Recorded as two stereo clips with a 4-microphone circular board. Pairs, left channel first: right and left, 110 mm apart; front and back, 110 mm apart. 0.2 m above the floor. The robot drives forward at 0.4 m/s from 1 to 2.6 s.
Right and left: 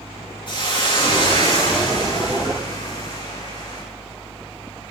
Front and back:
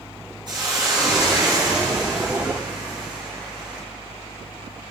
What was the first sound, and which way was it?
A hiss, 135° right.